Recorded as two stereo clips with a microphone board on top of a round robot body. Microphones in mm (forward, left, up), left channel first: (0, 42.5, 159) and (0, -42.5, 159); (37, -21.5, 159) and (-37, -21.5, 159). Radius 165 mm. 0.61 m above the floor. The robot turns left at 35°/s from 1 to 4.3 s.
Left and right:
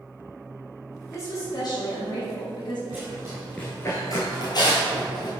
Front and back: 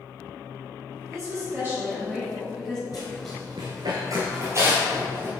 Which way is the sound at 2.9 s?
25° right.